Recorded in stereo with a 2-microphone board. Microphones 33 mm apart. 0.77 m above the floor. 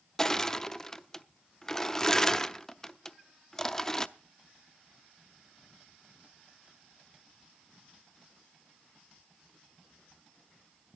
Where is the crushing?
15° left (ahead or behind), 0.5 m.